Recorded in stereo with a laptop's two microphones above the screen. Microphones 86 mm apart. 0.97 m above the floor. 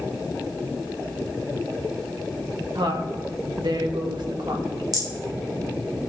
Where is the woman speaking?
65° right (ahead or behind), 1.6 m.